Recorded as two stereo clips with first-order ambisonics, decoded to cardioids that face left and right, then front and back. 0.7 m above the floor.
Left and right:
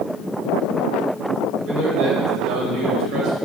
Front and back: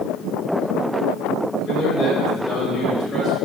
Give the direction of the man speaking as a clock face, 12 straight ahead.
2 o'clock.